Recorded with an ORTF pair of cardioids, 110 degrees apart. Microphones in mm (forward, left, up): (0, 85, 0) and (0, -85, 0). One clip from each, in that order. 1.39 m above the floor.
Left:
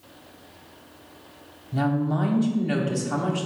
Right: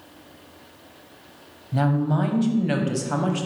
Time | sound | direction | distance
1.7 | a woman speaking | 20° right | 0.8 m